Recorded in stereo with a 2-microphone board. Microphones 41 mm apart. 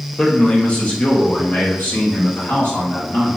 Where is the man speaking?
20° left (ahead or behind), 1.0 m; by 3.4 s 65° left (ahead or behind), 3 m.